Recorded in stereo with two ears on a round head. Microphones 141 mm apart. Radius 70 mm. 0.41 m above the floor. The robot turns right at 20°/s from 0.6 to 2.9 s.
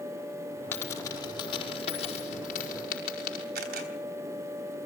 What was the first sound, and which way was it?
A dropped coin, 15° left (ahead or behind).